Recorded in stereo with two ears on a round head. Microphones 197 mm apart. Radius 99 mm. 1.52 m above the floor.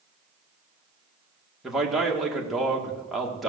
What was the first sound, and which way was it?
A man speaking, centre (ahead or behind).